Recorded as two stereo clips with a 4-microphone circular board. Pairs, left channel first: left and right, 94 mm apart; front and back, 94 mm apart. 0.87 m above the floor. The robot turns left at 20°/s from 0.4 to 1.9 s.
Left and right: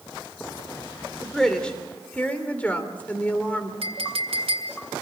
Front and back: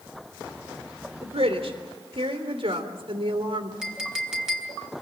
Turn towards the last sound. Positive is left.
turn(degrees=-95)